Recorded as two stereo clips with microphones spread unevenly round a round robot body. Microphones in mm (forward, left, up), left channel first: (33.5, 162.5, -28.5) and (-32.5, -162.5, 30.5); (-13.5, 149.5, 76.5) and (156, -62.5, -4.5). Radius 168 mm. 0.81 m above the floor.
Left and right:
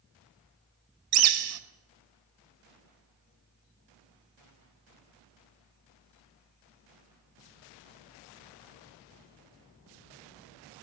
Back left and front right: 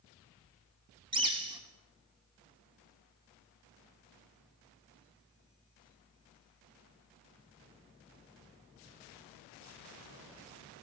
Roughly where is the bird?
Behind right.